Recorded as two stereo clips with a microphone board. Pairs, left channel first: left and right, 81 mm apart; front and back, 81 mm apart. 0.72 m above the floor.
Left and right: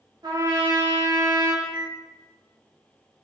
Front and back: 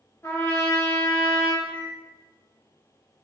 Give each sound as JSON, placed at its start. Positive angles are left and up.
{"t": 0.2, "sound": "a trumpet", "azimuth_deg": -60, "distance_m": 0.8}
{"t": 1.6, "sound": "a microwave", "azimuth_deg": -10, "distance_m": 1.1}